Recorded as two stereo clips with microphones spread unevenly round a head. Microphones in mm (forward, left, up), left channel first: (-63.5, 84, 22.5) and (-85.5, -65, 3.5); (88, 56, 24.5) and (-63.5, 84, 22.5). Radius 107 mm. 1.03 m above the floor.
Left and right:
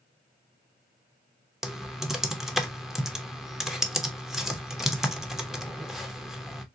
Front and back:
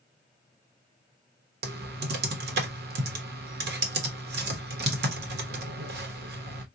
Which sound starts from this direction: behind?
Typing on a keyboard, at 1.6 s.